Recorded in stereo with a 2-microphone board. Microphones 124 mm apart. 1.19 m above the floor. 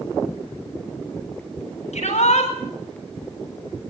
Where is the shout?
60° left (ahead or behind), 7.5 m.